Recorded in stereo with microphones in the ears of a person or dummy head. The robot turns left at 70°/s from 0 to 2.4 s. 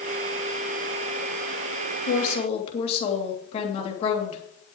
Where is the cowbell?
I don't hear a cowbell.